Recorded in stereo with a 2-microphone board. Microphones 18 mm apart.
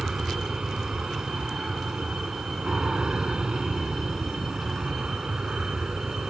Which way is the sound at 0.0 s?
60° right (ahead or behind).